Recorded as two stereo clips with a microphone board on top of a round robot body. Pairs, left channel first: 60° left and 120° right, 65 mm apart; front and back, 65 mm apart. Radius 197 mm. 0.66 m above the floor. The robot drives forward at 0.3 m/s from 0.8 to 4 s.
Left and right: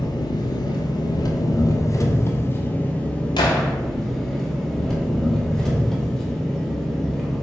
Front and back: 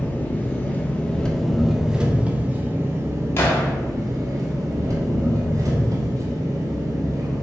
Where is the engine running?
65° left, 0.7 m; by 7.4 s 140° left, 1.0 m.